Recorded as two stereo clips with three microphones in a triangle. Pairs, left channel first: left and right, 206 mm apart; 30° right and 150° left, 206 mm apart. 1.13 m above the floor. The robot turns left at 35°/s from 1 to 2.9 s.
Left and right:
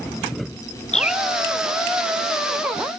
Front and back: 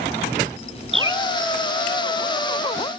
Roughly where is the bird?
Behind left.